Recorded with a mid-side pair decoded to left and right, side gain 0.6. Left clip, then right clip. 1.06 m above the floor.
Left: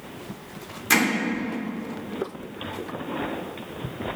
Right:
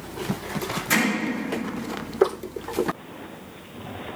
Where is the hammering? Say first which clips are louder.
Left 2 dB; 30° left, 3 m.